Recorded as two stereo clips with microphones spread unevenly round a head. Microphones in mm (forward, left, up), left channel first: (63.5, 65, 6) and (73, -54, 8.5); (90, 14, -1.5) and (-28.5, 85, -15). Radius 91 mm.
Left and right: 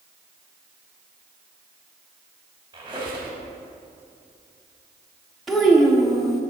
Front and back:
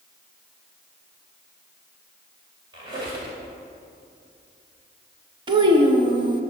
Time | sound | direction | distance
2.7 | a squeak | 150° right | 1.9 m
5.5 | a child speaking | 175° right | 0.7 m